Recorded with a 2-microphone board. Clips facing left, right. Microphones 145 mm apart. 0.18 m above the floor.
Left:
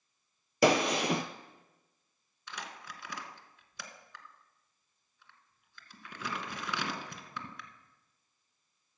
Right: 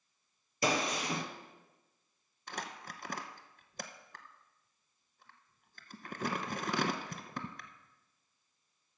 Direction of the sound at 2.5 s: 50° right (ahead or behind).